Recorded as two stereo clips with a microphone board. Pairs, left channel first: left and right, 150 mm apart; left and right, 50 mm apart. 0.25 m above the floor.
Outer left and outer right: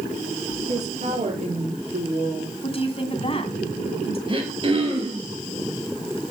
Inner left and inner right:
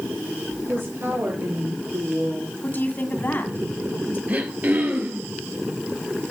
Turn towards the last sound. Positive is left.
turn(degrees=-35)  # may be behind; listen again after turning